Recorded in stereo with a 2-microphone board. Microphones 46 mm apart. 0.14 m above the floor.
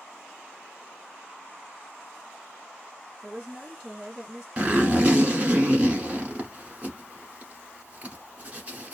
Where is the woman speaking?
25° right (ahead or behind), 1.5 m.